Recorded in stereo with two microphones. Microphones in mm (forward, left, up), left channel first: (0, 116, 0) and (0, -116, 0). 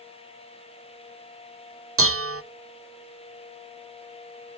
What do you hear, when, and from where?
2.0 s dishes clattering: 70° right (ahead or behind), 0.6 m